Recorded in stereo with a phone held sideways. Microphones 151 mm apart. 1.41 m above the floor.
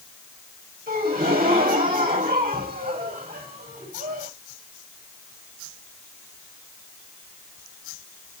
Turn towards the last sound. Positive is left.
turn(degrees=-75)  # may be behind; listen again after turning